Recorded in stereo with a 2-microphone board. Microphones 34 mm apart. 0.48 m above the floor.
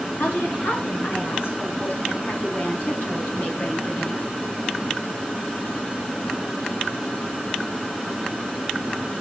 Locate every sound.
0.2 s a woman speaking: 75° left (ahead or behind), 6.5 m; by 4.3 s 45° left (ahead or behind), 4 m